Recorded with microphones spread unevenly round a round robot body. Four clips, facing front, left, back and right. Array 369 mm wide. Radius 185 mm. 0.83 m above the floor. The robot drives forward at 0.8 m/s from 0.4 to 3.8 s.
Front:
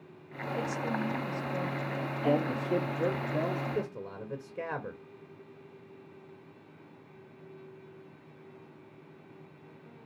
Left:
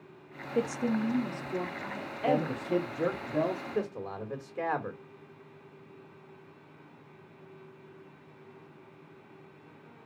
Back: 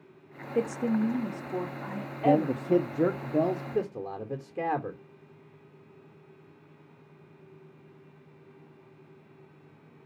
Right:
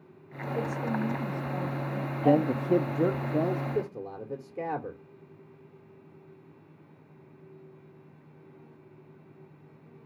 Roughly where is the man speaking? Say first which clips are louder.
Right 5 dB, back 5 dB; behind right.